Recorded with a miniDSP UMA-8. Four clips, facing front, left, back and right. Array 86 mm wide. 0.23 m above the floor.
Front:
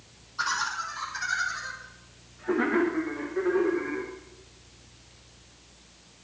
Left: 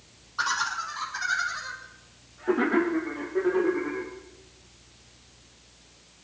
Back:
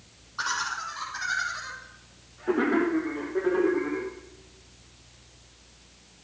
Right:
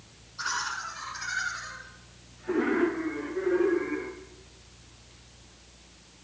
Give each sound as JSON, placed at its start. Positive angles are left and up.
{"t": 0.4, "sound": "laughter", "azimuth_deg": 115, "distance_m": 8.5}